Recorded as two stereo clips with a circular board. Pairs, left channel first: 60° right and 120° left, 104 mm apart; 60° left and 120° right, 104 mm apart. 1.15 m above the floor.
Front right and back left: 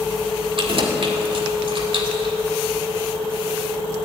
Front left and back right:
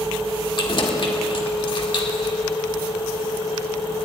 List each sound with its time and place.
0.6 s keys jangling: 90° left, 2 m